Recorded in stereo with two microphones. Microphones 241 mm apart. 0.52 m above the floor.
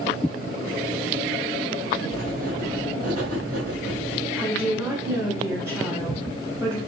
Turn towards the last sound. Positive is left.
turn(degrees=-10)  # may be behind; listen again after turning